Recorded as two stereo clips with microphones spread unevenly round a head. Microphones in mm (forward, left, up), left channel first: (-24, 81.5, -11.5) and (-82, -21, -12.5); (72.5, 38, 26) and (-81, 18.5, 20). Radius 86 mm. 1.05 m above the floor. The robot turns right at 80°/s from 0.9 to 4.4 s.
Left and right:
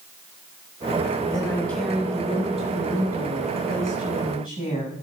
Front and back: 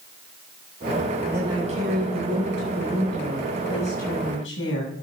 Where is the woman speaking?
105° left, 7 m; by 4.9 s 5° right, 7 m.